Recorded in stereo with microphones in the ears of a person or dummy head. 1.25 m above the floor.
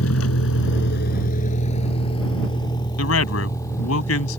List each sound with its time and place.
0.0 s a vehicle: 85° left; by 4.4 s 10° left (ahead or behind)
3.0 s a man speaking: 85° left